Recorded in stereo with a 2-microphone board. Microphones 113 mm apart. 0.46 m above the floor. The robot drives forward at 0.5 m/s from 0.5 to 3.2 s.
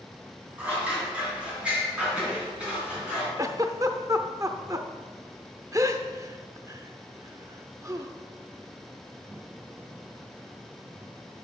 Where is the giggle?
30° right (ahead or behind), 0.6 m.